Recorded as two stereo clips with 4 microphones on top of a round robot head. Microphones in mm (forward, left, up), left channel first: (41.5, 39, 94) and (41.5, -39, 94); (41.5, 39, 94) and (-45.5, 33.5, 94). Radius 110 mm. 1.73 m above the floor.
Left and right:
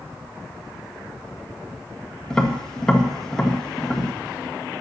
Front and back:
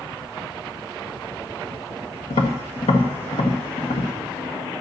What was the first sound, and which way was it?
Tapping, 5° left.